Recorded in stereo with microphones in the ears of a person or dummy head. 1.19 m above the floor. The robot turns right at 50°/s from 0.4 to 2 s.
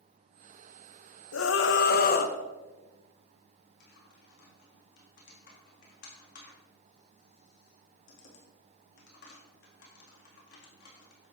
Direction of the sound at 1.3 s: 100° left.